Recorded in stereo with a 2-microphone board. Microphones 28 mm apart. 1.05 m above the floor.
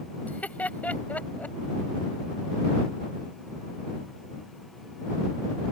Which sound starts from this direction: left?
Laughter, at 0.2 s.